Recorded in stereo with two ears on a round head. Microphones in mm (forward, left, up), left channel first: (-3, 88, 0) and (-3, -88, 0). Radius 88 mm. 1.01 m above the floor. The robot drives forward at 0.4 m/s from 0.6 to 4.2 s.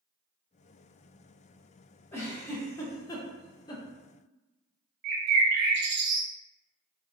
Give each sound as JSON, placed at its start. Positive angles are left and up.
{"t": 2.1, "sound": "a giggle", "side_deg": 10, "distance_m": 0.8}
{"t": 5.0, "sound": "a bird", "side_deg": -55, "distance_m": 0.8}